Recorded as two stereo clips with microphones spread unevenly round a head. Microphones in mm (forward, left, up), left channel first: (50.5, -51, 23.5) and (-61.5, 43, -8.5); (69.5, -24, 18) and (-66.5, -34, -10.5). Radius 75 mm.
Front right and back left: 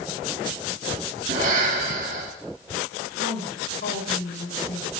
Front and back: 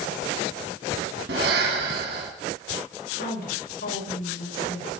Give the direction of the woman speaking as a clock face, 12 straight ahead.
12 o'clock.